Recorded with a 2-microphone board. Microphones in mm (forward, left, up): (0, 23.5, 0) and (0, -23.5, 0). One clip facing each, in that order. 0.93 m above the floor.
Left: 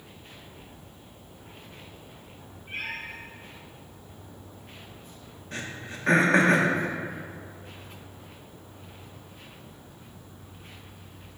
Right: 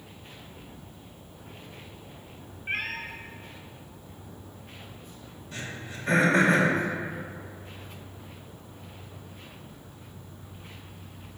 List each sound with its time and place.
2.7 s a cat meowing: 65° right (ahead or behind), 1.2 m
5.5 s throat clearing: 50° left (ahead or behind), 1.4 m